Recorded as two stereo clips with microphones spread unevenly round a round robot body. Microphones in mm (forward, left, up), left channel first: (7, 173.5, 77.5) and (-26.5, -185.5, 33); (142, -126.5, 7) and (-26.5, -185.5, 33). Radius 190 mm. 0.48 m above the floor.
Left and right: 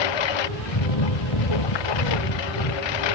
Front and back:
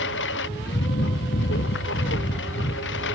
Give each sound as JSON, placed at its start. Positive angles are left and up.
{"t": 0.0, "sound": "a lawn mower", "azimuth_deg": 65}